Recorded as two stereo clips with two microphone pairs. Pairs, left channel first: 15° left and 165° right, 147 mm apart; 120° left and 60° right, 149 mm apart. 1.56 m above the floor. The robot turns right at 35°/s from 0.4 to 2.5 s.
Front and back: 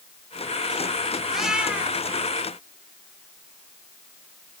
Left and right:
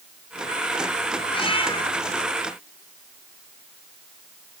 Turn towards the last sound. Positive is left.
turn(degrees=150)